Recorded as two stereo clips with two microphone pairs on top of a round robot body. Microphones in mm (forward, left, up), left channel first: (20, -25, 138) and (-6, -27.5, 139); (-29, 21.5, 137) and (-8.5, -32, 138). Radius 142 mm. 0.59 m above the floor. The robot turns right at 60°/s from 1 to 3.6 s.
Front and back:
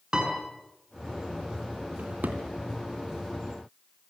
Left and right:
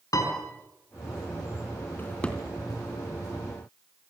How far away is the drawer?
About 3 m.